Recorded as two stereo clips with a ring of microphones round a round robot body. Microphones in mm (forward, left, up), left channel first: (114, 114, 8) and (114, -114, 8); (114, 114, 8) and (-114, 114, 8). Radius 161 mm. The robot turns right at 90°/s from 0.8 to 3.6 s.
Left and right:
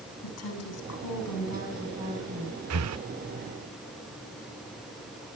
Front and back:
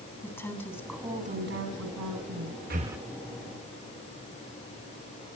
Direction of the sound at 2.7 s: 120° right.